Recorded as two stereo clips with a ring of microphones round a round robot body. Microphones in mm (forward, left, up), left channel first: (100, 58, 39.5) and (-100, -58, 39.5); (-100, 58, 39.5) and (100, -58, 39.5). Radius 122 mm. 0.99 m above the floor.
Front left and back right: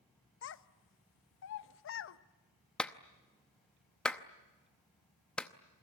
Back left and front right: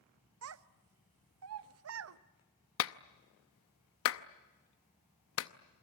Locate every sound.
0.4 s a child speaking: 5° right, 0.9 m
2.8 s a clap: 115° left, 0.8 m